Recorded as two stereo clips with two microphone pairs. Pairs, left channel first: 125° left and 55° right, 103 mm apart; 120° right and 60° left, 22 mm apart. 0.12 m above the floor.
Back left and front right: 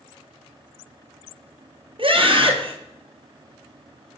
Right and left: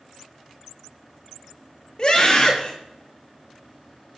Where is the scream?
75° right, 3.5 m.